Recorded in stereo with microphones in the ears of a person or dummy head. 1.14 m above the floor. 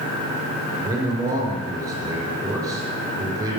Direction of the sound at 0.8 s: 25° right (ahead or behind).